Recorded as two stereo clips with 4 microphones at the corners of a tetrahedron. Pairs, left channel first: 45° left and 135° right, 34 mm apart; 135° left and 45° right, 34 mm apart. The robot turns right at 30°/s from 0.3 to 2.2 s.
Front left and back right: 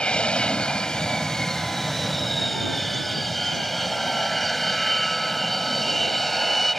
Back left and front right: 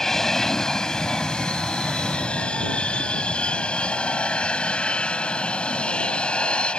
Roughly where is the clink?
No clink in this recording.